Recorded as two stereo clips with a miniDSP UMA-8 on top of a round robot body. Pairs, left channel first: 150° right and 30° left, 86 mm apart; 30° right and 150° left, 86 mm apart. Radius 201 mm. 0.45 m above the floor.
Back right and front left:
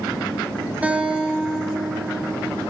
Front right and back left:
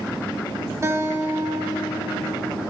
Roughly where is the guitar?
Left.